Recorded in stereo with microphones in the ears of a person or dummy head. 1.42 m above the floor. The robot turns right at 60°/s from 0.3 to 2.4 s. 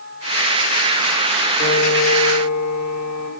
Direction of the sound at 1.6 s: 40° left.